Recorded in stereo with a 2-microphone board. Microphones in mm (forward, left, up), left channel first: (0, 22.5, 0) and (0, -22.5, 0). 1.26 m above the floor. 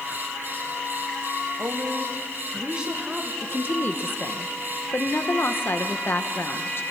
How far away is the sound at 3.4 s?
About 1.3 m.